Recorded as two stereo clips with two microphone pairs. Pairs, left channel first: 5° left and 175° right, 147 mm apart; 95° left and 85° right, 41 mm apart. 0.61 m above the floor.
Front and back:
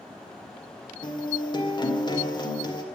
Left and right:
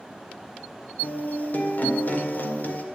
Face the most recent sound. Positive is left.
turn(degrees=60)